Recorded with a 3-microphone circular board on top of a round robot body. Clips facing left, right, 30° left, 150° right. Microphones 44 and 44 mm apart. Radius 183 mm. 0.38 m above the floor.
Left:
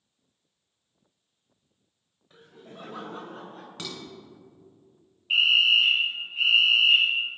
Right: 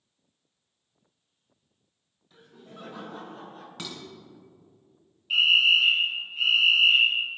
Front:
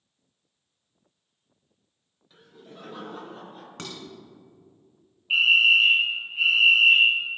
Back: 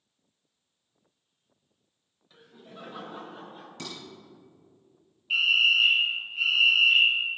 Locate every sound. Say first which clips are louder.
2.3 s laughter: left 1 dB, front 1 dB; 120° left, 3 m; by 3.7 s 125° left, 4.5 m
3.8 s dishes clattering: left 1 dB, front 2 dB; straight ahead, 2.5 m
5.3 s a fire alarm: even, front 4 dB; 65° left, 2.0 m